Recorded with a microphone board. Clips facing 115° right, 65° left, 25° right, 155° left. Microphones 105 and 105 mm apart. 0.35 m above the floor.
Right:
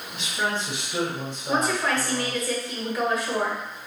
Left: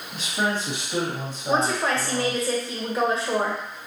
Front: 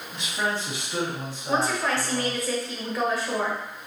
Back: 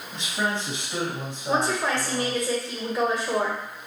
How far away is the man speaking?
About 2 m.